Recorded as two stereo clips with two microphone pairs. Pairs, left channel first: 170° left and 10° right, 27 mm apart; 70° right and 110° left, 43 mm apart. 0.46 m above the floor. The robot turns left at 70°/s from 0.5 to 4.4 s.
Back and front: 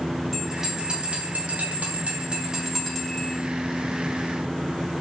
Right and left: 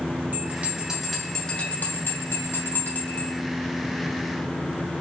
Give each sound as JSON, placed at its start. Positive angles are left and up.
{"t": 0.3, "sound": "a bell", "azimuth_deg": 70, "distance_m": 3.0}